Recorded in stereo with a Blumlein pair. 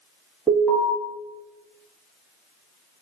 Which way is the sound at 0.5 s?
5° right.